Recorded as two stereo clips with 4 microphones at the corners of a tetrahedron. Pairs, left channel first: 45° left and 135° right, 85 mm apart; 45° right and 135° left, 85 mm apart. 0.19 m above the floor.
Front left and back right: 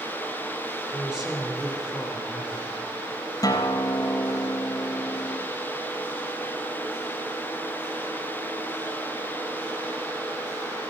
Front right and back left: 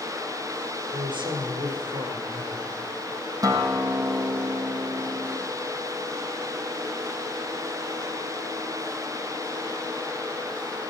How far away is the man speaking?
About 3 m.